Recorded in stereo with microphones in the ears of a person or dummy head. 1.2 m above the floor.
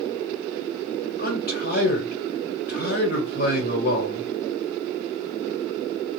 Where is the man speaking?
50° left (ahead or behind), 1.4 m.